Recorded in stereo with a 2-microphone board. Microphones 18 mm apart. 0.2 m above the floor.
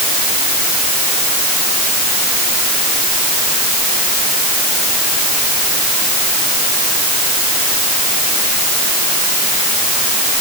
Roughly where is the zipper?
No zipper in this recording.